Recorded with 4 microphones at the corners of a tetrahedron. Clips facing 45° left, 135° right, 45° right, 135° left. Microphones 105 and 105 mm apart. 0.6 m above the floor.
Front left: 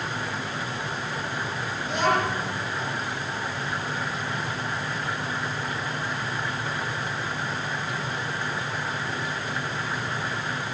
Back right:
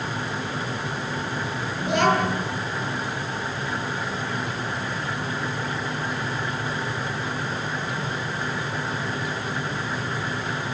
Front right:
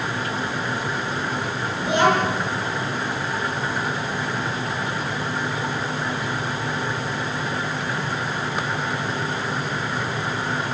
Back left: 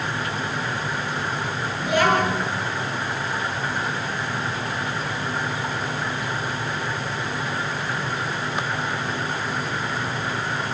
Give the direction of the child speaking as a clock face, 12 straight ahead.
4 o'clock.